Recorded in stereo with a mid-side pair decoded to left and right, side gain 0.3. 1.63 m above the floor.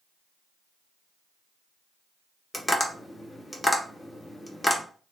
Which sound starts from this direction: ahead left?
Tapping, at 2.5 s.